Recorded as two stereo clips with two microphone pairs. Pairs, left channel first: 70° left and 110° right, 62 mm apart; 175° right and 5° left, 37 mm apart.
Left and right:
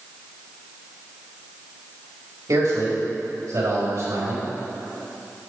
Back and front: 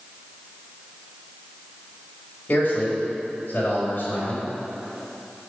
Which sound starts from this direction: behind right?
A man speaking, at 2.5 s.